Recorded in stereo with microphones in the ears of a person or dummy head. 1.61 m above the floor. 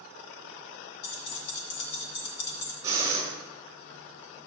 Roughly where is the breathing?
Centre.